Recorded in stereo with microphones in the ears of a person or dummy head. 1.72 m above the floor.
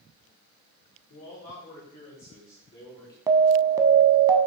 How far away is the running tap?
No running tap in this recording.